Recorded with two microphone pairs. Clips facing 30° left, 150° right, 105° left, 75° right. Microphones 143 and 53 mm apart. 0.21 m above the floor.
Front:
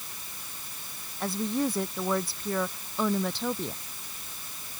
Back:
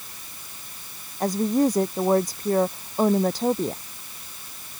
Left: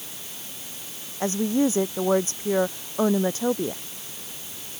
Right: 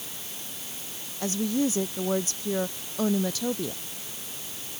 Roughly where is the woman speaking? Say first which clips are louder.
Back 8 dB, left 4 dB; behind.